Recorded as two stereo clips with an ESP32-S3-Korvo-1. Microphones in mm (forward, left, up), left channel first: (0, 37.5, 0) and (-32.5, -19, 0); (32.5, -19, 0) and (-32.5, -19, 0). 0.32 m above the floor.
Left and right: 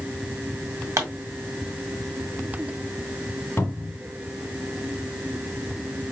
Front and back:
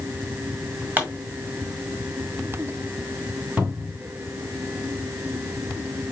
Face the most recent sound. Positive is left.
turn(degrees=115)